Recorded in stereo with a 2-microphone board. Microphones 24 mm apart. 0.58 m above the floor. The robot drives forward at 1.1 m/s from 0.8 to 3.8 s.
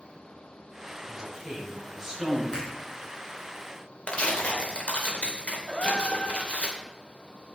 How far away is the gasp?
About 2 m.